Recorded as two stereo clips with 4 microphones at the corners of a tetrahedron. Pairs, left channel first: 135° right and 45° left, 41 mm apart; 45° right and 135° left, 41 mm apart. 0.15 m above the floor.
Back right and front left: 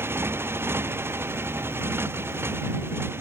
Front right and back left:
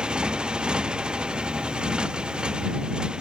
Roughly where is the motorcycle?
Ahead left.